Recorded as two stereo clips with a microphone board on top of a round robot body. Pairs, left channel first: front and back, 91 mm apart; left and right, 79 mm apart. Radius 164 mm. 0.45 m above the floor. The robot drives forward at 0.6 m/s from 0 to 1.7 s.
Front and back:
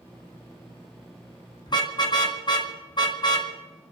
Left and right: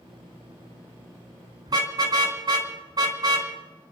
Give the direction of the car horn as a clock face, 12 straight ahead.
2 o'clock.